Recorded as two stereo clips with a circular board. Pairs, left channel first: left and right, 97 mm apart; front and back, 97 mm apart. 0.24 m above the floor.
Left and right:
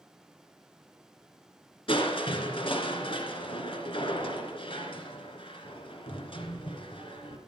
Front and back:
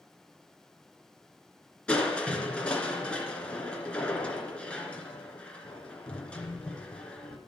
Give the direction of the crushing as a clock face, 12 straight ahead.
9 o'clock.